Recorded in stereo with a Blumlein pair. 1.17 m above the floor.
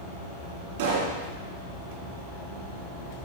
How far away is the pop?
About 2.5 m.